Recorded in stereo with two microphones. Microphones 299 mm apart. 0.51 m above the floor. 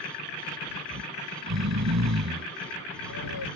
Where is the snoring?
65° right (ahead or behind).